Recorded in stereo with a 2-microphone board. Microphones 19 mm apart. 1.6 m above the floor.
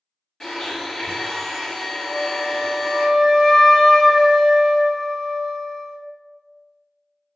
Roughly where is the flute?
Centre.